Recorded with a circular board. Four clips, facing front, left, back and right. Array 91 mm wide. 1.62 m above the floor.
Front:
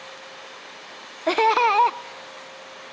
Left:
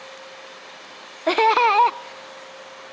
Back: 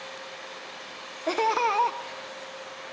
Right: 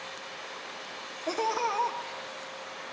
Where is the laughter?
60° left, 0.6 m.